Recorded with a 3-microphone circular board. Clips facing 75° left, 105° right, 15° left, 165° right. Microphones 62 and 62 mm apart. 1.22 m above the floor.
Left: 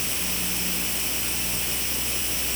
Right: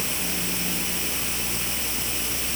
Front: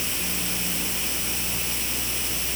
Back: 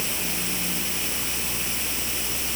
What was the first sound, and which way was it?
Only background noise.